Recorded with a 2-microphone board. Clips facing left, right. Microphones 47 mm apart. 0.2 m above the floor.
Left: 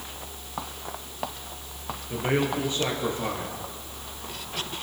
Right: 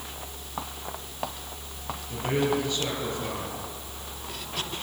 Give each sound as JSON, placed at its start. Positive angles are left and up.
{"t": 2.1, "sound": "a man speaking", "side_deg": 30, "distance_m": 3.0}